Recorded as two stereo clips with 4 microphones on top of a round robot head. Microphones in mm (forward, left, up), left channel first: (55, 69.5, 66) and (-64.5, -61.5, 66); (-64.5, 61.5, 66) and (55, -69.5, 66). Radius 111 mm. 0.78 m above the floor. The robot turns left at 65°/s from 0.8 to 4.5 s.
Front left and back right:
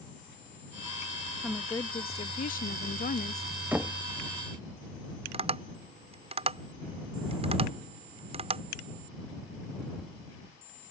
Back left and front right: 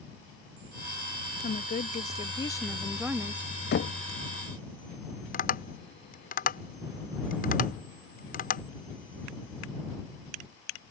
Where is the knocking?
150° left; by 4.0 s 130° left.